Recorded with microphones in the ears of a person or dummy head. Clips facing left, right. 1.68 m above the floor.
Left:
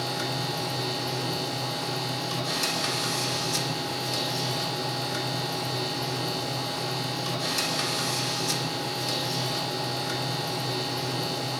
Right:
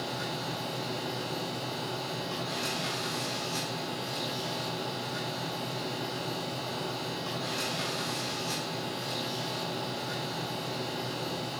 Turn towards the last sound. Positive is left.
turn(degrees=80)